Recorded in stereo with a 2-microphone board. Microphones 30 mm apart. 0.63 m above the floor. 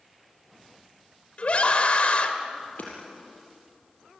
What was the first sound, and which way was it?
A scream, 45° left (ahead or behind).